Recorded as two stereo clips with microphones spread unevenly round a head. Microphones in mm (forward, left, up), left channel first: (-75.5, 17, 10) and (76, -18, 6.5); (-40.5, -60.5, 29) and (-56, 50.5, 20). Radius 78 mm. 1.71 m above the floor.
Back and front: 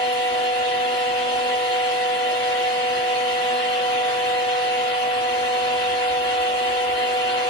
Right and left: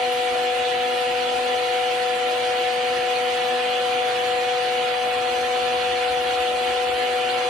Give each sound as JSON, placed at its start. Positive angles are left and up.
{"t": 0.0, "sound": "a fan", "azimuth_deg": -165, "distance_m": 1.2}